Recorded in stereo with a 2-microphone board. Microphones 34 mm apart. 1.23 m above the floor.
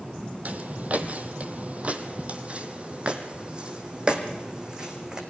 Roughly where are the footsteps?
Right.